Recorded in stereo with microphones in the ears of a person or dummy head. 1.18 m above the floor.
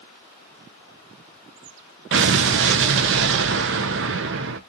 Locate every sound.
2.1 s an explosion: 60° right (ahead or behind), 0.5 m